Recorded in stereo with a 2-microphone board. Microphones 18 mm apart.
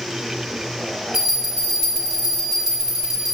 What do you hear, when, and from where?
1.1 s a bell: 30° right (ahead or behind), 1.3 m